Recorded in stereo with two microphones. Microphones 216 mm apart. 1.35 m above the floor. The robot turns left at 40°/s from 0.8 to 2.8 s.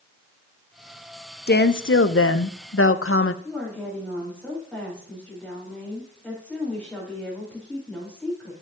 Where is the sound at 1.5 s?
130° left, 0.6 m; by 3.3 s 80° left, 0.6 m.